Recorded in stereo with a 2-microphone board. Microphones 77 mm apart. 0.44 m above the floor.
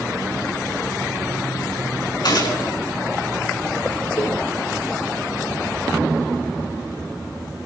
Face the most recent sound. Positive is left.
turn(degrees=50)  # may be behind; listen again after turning